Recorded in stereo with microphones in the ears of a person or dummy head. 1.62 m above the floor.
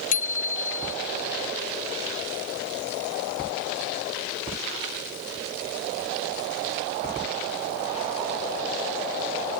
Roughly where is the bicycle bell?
Left.